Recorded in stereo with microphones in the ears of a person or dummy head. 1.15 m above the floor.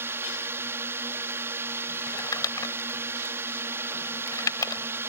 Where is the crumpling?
15° left (ahead or behind).